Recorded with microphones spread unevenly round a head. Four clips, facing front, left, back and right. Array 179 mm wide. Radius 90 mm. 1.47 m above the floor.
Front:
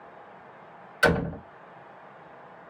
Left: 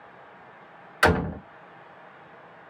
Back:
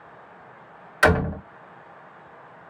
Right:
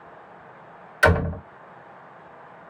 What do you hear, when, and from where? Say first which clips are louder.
1.0 s a door slam: right 2 dB, back 4 dB; 155° left, 2.5 m